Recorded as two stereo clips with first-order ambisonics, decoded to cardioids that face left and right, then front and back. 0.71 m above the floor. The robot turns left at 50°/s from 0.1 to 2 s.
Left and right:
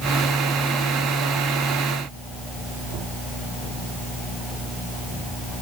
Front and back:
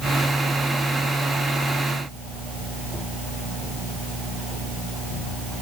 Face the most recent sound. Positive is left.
No sound to turn to.